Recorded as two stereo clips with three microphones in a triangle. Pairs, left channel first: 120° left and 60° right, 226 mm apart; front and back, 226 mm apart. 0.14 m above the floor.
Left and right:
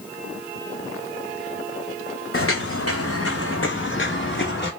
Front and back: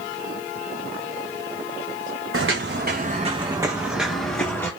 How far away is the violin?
No violin in this recording.